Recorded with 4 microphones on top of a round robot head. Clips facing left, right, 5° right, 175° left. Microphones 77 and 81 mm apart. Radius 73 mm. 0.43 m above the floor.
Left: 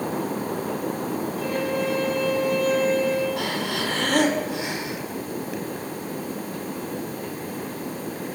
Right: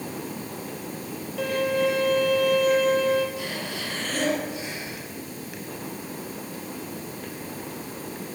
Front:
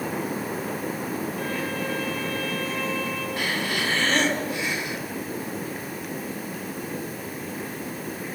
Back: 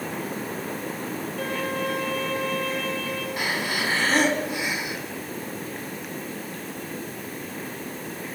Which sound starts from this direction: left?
Breathing, at 3.4 s.